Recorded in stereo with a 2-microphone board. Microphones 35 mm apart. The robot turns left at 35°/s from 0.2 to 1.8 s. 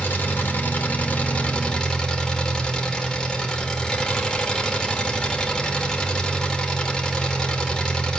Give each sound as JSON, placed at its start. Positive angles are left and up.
{"t": 0.0, "sound": "an engine running", "azimuth_deg": 85, "distance_m": 1.8}